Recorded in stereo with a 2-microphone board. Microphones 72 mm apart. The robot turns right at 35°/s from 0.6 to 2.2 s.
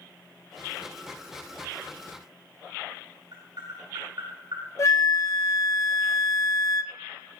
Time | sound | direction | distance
3.3 | tapping | 70° right (ahead or behind) | 6.5 m
4.8 | a flute | 45° left (ahead or behind) | 0.5 m